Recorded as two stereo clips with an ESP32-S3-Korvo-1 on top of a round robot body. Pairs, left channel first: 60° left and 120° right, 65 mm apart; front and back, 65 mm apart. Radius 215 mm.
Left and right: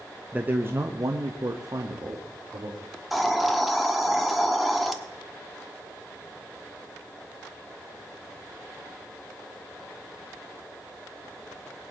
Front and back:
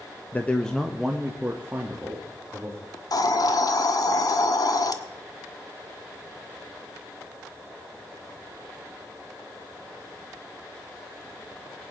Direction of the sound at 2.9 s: 30° right.